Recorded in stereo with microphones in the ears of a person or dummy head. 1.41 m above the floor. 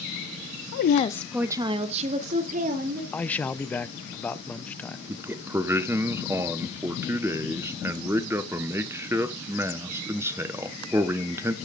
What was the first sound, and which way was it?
A woman speaking, 60° left (ahead or behind).